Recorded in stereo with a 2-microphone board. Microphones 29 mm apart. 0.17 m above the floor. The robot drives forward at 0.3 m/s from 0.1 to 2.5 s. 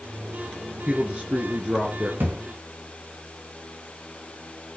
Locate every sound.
0.9 s a man speaking: 40° right (ahead or behind), 3 m; by 2.1 s 45° right (ahead or behind), 2.5 m
2.2 s a thud: 90° right, 5 m